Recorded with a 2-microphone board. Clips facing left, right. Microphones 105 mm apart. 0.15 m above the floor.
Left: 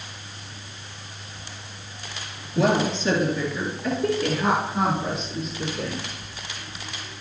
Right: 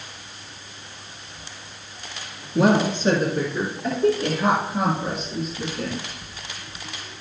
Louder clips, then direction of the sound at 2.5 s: Right 3 dB; 55° right (ahead or behind).